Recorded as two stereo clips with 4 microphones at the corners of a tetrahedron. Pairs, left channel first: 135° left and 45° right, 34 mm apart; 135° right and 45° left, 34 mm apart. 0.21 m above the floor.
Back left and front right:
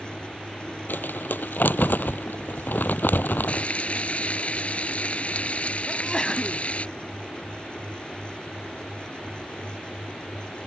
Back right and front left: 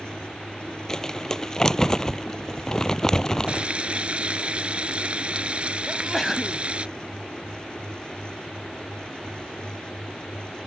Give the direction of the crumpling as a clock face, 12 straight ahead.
7 o'clock.